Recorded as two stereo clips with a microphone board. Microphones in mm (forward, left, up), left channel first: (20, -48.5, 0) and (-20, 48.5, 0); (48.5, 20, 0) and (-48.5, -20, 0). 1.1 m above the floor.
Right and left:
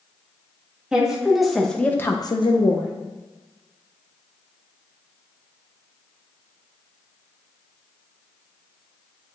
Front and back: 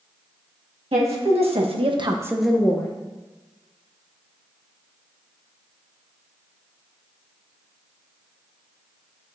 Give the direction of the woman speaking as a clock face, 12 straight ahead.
6 o'clock.